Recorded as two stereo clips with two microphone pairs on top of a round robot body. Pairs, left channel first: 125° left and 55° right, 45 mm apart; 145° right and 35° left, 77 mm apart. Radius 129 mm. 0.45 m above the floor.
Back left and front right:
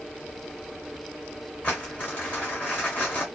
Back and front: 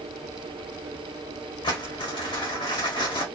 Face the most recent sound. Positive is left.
turn(degrees=-175)